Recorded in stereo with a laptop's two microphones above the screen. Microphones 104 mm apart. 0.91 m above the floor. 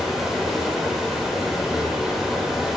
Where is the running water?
Centre (ahead or behind), 0.8 m.